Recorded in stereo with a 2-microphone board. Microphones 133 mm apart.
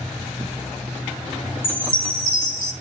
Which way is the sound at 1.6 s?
80° left.